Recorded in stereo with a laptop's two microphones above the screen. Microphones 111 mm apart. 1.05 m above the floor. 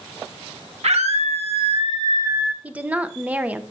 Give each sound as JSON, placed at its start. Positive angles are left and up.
{"t": 0.8, "sound": "a scream", "side_deg": -75, "distance_m": 1.6}
{"t": 2.6, "sound": "a woman speaking", "side_deg": -15, "distance_m": 0.5}